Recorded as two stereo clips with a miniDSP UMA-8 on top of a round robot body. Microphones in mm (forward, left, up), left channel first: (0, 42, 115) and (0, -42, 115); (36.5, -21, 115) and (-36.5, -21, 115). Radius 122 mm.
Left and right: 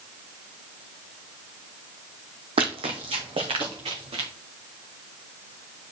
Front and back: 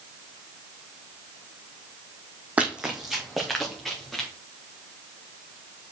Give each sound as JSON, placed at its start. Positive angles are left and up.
{"t": 2.6, "sound": "running footsteps", "azimuth_deg": -110, "distance_m": 1.0}